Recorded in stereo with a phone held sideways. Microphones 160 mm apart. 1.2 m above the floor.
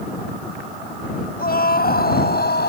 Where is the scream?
60° left (ahead or behind); by 2.7 s 70° left (ahead or behind).